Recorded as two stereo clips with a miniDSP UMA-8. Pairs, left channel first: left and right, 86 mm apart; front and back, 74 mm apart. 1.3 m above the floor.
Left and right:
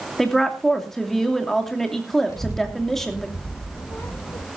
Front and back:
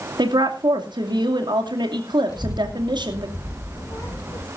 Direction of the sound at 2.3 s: 40° left.